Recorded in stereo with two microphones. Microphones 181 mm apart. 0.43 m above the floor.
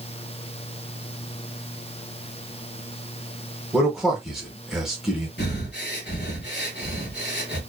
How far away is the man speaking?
About 0.9 m.